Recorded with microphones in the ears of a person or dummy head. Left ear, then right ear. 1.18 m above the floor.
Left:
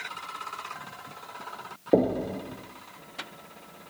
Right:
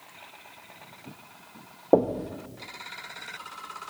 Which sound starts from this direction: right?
Knocking, at 1.9 s.